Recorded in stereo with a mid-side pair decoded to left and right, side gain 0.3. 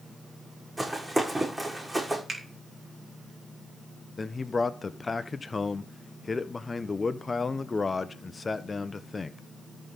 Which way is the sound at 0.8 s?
25° right.